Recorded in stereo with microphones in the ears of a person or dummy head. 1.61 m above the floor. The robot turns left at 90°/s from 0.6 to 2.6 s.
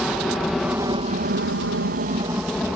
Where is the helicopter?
Centre (ahead or behind).